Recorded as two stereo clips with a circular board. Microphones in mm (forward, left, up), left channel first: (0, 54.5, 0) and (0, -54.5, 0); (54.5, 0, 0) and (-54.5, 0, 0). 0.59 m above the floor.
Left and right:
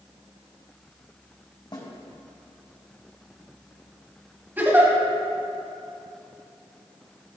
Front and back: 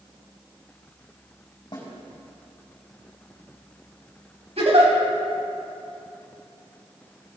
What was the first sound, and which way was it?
A snare drum, 45° left.